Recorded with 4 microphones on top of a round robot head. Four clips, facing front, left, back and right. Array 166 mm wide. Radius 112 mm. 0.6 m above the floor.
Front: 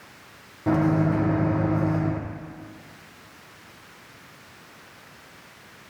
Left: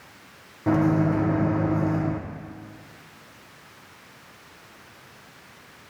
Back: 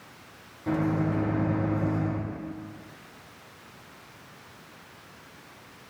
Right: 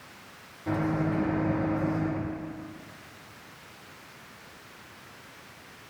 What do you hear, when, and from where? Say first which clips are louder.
0.7 s a microwave: left 7 dB, front 5 dB; 50° left, 1.0 m